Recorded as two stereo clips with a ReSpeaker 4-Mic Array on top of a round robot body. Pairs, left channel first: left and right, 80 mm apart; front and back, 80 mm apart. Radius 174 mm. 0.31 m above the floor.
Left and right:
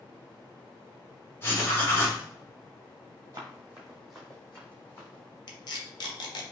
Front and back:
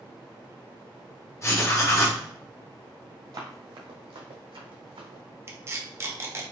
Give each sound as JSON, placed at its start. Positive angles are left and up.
{"t": 1.4, "sound": "writing", "azimuth_deg": 40, "distance_m": 1.8}
{"t": 3.3, "sound": "running footsteps", "azimuth_deg": -140, "distance_m": 0.6}
{"t": 5.5, "sound": "tape being pulled", "azimuth_deg": 120, "distance_m": 0.9}